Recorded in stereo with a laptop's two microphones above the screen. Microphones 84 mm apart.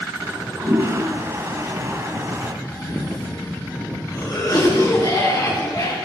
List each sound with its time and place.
0.2 s a toilet flushing: 35° right (ahead or behind), 2.5 m
2.6 s a cough: 50° left (ahead or behind), 9 m